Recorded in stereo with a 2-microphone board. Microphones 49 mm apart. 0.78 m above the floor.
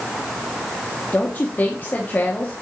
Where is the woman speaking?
35° left (ahead or behind), 1.2 m.